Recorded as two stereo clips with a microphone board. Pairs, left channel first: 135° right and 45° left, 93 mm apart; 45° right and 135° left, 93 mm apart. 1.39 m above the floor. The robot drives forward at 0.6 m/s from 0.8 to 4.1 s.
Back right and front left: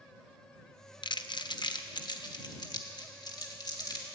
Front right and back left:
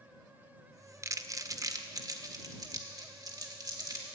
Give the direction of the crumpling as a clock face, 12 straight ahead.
6 o'clock.